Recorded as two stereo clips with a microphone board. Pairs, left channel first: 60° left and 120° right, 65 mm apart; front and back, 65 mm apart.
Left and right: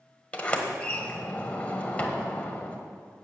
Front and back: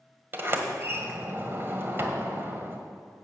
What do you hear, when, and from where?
0.3 s a sliding door: 125° left, 1.5 m